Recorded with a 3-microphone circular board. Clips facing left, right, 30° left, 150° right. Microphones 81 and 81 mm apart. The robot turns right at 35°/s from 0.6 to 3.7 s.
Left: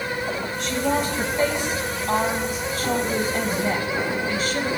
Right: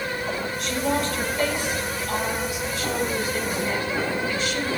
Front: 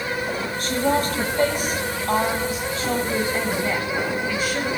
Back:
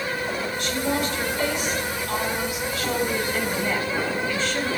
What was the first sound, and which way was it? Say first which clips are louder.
A woman speaking: left 2 dB, front 5 dB; straight ahead.